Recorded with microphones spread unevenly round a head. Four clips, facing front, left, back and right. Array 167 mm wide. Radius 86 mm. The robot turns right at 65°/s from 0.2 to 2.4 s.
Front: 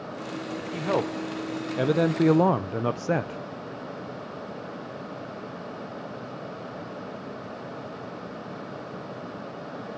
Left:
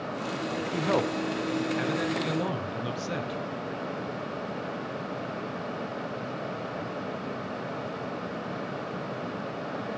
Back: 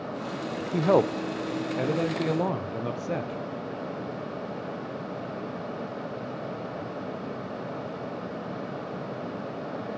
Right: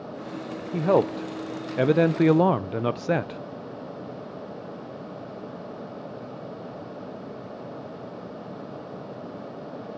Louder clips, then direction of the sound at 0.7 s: Right 7 dB, back 5 dB; 145° right.